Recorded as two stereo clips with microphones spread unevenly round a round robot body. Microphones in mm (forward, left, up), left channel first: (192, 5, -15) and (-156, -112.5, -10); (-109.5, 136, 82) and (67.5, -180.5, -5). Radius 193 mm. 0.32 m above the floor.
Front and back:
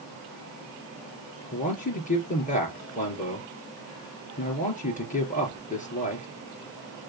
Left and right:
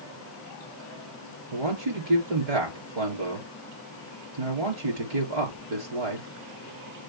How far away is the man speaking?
About 4.5 m.